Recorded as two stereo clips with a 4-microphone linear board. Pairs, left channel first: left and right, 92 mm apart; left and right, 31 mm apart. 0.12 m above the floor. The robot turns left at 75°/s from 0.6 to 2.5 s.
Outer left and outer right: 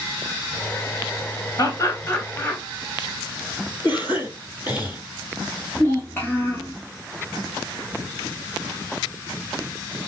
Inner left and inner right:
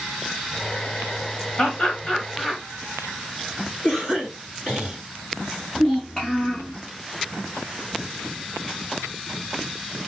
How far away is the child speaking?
About 0.9 m.